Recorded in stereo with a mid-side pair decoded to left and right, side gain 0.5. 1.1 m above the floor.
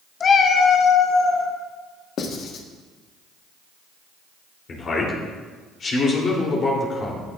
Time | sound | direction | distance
0.2 | a cat meowing | 40° left | 0.9 m
2.2 | writing | 60° left | 1.3 m
4.7 | a man speaking | 45° left | 3 m